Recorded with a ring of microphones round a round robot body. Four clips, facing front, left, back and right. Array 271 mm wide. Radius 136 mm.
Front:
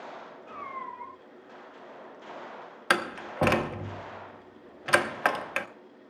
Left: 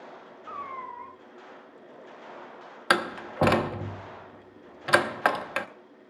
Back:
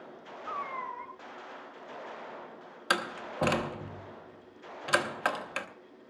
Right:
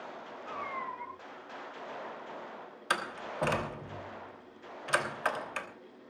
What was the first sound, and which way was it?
A cat meowing, 155° left.